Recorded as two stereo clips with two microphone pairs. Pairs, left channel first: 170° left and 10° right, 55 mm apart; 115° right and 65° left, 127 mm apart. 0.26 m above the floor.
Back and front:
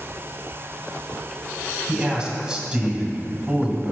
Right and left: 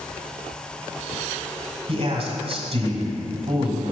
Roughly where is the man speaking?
Ahead left.